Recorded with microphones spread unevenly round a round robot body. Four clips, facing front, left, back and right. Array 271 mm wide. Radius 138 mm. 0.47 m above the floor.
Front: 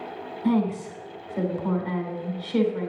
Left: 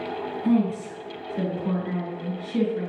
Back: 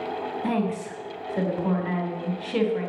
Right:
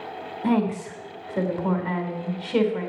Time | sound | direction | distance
0.4 | a woman speaking | 110° right | 3.5 m